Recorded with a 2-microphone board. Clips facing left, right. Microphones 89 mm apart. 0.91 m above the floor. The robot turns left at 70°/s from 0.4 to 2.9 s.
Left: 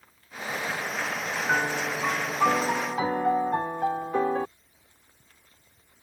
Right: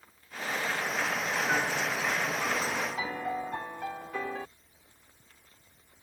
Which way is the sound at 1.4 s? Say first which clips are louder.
Left 6 dB; 145° left.